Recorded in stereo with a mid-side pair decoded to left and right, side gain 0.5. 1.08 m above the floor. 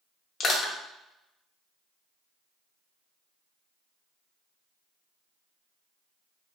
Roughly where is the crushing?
Ahead left.